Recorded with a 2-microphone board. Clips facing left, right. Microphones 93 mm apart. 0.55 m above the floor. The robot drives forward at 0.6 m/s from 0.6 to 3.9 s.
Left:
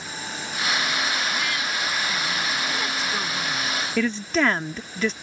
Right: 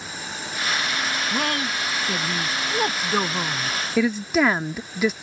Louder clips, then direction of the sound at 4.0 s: Right 3 dB; 10° right (ahead or behind).